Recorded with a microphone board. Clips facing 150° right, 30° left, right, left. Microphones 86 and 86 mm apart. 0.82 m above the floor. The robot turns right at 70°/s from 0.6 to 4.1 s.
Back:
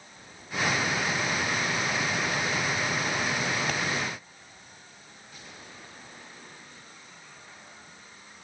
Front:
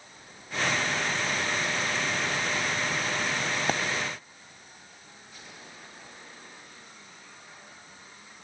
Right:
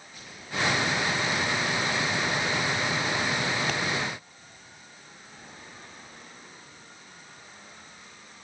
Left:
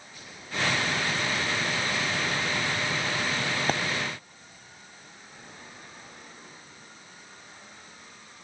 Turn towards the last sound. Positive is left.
turn(degrees=90)